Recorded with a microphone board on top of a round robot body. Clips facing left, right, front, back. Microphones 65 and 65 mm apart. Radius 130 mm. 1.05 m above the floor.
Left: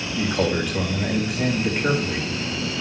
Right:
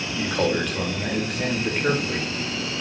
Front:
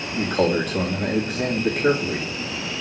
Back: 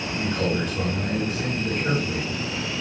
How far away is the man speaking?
About 3 m.